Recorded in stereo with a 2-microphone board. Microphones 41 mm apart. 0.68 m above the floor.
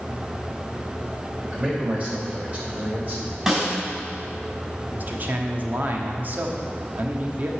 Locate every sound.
1.5 s a man speaking: 25° right (ahead or behind), 2 m; by 3.4 s 35° right (ahead or behind), 3.5 m
3.5 s a snare drum: 10° right (ahead or behind), 3.5 m
4.9 s a man speaking: 45° right (ahead or behind), 1.2 m